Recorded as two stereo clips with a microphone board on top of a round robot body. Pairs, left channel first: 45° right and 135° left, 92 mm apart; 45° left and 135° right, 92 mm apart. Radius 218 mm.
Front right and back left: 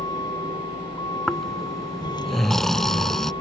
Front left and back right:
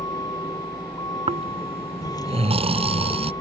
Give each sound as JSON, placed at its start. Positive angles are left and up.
{"t": 0.0, "sound": "a vehicle", "azimuth_deg": -5}
{"t": 1.3, "sound": "snoring", "azimuth_deg": -130}